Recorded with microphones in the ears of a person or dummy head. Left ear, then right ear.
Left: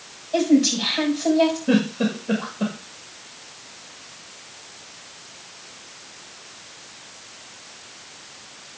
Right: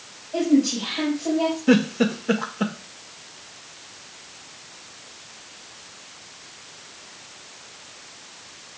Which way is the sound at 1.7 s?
50° right (ahead or behind).